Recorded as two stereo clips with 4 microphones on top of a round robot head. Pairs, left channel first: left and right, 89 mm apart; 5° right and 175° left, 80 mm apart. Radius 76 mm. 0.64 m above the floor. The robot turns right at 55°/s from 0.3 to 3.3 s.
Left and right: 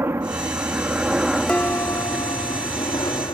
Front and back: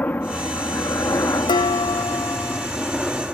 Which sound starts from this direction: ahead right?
A helicopter, at 0.0 s.